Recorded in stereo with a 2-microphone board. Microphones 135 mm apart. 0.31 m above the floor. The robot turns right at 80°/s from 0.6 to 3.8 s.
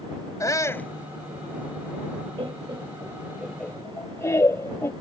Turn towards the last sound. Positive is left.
turn(degrees=20)  # may be behind; listen again after turning